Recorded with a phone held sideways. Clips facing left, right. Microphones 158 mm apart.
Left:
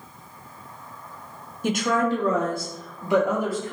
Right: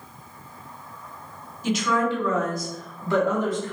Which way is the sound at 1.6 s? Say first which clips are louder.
Left 1 dB; 55° left (ahead or behind).